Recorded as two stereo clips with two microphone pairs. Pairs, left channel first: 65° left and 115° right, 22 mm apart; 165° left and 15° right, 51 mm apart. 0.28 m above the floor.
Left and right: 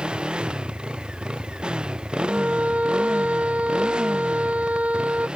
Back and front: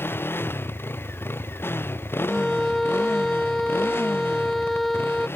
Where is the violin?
110° right.